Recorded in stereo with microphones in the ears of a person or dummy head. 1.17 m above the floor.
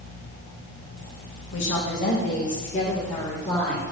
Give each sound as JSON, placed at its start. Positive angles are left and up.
{"t": 1.5, "sound": "a woman speaking", "side_deg": 70, "distance_m": 1.3}